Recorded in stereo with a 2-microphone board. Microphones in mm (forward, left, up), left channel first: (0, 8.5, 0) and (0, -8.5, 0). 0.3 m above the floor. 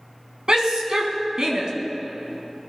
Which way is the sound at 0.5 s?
50° right (ahead or behind).